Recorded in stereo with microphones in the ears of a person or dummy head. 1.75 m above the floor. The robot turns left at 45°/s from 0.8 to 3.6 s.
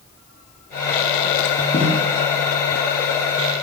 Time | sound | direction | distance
1.7 | a snare drum | 25° left (ahead or behind) | 0.7 m